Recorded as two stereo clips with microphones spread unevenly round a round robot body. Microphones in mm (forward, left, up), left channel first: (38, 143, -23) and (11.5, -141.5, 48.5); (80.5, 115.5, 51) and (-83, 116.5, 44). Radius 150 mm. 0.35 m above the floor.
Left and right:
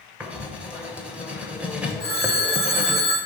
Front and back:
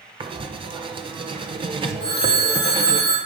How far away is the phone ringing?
About 3 m.